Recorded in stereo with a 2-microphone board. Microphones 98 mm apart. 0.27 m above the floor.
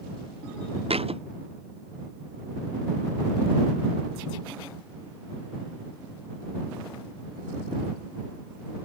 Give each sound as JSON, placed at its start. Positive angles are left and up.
{"t": 0.9, "sound": "a thud", "side_deg": -85}